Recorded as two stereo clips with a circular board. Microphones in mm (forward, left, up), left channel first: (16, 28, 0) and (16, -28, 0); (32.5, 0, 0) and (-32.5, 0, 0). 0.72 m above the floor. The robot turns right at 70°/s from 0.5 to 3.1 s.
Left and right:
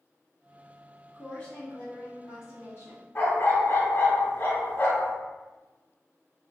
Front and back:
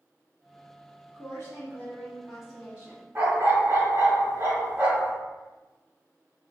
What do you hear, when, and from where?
1.1 s a woman speaking: 5° left, 1.8 m; by 3.0 s 135° left, 1.8 m
3.1 s a dog barking: 130° left, 1.3 m